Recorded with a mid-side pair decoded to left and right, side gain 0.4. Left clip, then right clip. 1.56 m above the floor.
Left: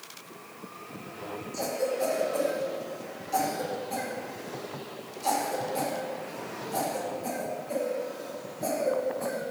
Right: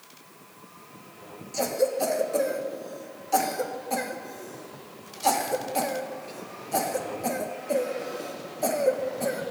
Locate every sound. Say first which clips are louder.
1.5 s a cough: right 4 dB; 60° right, 1.3 m